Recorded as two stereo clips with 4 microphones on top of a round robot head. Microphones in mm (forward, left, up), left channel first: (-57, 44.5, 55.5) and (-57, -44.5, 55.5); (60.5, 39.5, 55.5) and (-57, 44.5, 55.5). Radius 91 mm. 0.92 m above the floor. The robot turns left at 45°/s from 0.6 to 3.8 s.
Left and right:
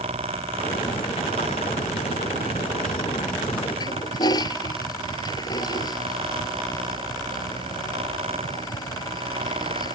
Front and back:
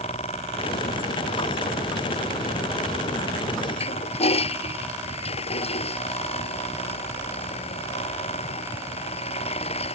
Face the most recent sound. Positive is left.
turn(degrees=35)